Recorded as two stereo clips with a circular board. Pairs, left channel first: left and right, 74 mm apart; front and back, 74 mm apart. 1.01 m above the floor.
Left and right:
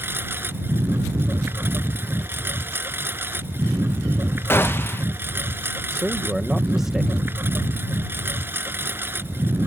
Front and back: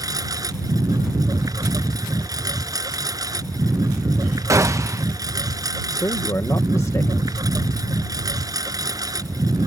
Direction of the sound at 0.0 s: 150° right.